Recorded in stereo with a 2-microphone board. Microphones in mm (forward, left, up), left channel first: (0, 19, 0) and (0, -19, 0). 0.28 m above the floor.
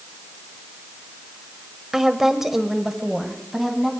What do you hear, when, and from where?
1.9 s a woman speaking: 10° right (ahead or behind), 1.0 m; by 3.9 s 5° right (ahead or behind), 1.9 m